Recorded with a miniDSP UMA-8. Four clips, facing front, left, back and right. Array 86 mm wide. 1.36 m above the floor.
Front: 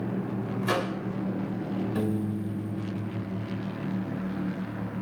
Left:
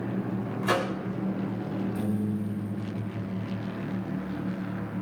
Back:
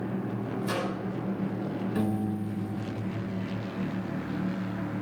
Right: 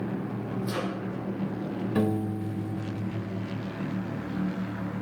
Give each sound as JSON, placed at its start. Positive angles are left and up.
{"t": 0.6, "sound": "a microwave", "azimuth_deg": 60, "distance_m": 6.5}
{"t": 1.9, "sound": "a piano", "azimuth_deg": -90, "distance_m": 3.0}